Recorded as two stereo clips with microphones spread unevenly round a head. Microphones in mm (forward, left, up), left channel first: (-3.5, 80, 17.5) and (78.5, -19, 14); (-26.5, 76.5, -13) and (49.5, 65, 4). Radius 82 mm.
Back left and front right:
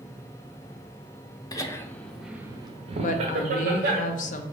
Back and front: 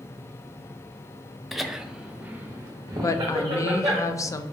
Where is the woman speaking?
120° left, 0.5 m.